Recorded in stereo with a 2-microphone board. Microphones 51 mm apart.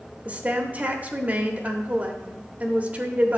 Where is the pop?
No pop in this recording.